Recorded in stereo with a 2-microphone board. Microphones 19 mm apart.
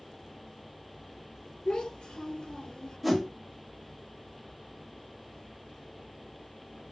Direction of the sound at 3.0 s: Centre (ahead or behind).